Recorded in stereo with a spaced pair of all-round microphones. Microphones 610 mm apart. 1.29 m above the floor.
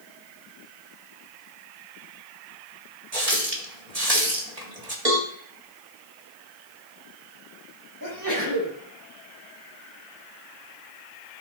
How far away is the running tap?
About 1.8 m.